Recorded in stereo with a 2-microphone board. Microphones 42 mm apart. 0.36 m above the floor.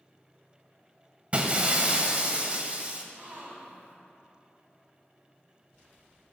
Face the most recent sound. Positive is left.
turn(degrees=-35)  # may be behind; listen again after turning